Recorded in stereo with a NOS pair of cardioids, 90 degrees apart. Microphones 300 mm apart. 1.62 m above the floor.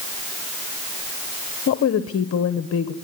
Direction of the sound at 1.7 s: 50° left.